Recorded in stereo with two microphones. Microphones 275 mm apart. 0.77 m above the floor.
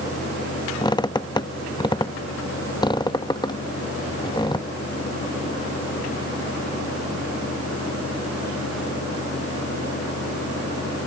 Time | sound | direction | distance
0.8 | a squeak | 15° left (ahead or behind) | ?